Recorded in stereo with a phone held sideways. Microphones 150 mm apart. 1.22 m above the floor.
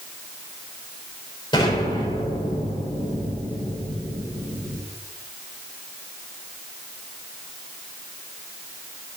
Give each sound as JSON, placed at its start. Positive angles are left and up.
{"t": 1.5, "sound": "an explosion", "side_deg": 30, "distance_m": 4.5}